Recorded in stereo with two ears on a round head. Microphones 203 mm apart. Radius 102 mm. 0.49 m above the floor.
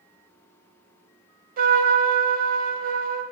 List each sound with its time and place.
1.6 s a trumpet: 40° right (ahead or behind), 0.7 m